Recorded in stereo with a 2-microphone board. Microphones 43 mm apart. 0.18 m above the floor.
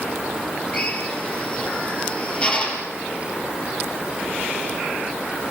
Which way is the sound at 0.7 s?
30° left (ahead or behind).